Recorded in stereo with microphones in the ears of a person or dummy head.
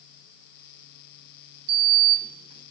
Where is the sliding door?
35° right (ahead or behind), 1.2 m.